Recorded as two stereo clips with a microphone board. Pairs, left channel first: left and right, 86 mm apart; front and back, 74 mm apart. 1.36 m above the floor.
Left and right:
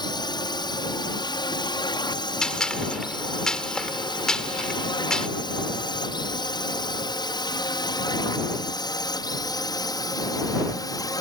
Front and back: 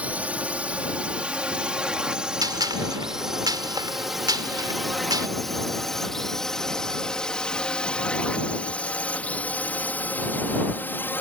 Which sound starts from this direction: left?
A drone, at 0.0 s.